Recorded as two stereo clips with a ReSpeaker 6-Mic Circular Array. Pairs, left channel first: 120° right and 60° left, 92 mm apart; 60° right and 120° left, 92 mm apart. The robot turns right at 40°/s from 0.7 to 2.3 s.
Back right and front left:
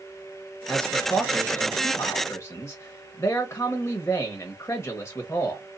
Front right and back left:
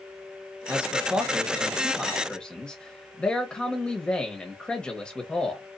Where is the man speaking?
165° left, 1.0 m; by 5.6 s 130° right, 1.0 m.